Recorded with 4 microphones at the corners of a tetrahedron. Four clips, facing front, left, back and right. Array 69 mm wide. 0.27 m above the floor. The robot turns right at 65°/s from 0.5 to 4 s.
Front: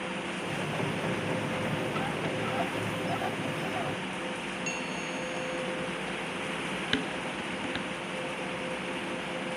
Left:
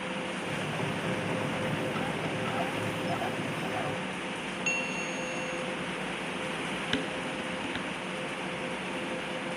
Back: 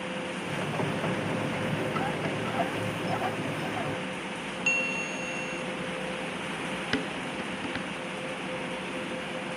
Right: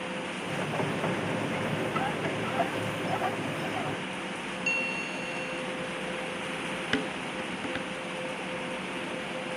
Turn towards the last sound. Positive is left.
turn(degrees=-120)